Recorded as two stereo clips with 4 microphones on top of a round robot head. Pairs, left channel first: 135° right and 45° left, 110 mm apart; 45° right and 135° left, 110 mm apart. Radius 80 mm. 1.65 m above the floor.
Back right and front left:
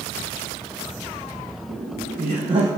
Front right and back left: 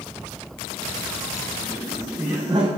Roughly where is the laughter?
Ahead left.